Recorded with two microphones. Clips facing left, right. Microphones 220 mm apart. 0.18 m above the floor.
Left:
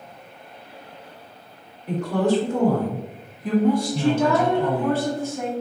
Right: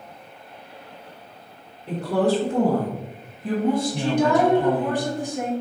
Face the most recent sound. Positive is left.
turn(degrees=-15)  # may be behind; listen again after turning